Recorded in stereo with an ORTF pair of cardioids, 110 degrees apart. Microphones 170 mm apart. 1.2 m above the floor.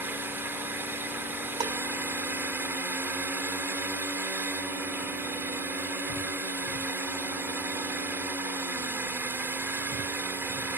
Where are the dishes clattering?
25° right.